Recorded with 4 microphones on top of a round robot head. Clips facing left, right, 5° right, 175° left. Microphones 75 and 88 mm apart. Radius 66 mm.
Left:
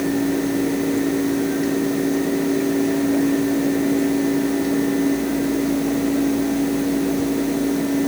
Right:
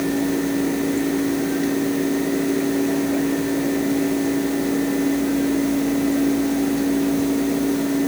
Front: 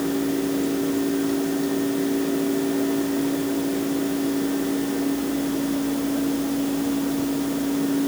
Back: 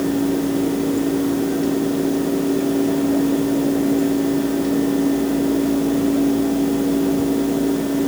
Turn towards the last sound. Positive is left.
No sound to turn to.